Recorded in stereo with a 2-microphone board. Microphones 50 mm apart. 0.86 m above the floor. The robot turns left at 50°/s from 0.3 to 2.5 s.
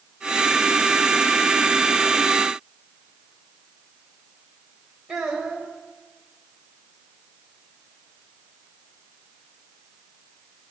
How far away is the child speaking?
About 3 m.